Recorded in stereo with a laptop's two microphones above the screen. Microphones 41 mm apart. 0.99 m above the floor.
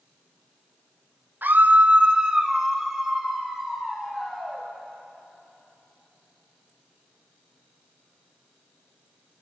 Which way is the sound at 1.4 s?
50° right (ahead or behind).